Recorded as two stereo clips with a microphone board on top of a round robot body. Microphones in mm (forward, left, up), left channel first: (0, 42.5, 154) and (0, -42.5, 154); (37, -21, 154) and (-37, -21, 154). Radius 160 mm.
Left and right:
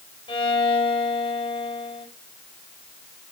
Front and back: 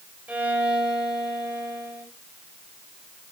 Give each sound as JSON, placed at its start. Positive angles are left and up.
{"t": 0.3, "sound": "a violin", "azimuth_deg": 110, "distance_m": 5.0}